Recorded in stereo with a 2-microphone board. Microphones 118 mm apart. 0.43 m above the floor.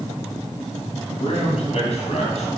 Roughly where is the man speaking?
Left.